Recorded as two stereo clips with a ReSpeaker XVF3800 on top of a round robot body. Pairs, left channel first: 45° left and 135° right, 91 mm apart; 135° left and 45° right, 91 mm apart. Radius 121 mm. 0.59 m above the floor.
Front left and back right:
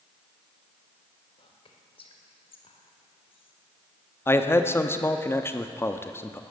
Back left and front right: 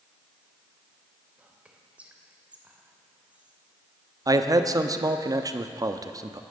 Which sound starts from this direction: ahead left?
Whispering, at 1.4 s.